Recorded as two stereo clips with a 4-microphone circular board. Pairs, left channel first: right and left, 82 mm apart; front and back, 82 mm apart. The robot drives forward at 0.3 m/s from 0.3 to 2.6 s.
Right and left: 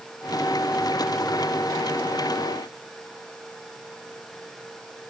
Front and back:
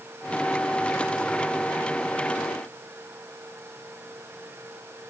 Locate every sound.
Only background noise.